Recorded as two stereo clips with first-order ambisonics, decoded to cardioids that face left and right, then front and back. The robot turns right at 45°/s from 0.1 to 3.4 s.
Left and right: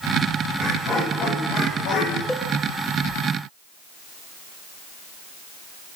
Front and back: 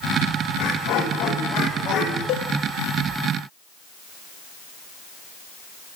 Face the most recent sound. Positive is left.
turn(degrees=50)